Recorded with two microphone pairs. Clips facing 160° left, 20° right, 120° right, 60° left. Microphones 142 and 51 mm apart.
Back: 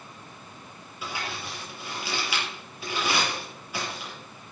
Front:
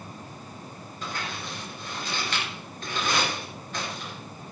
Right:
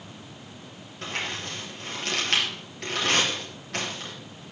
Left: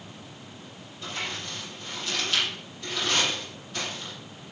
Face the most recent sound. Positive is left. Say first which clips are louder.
# even, right 2 dB
turn(degrees=-120)